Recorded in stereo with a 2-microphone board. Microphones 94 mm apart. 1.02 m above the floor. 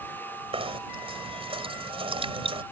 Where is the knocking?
85° right.